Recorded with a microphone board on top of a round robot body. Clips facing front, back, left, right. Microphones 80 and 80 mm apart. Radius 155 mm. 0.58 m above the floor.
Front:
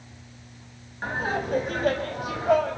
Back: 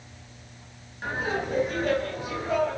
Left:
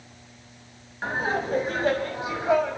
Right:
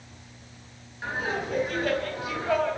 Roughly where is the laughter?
Ahead left.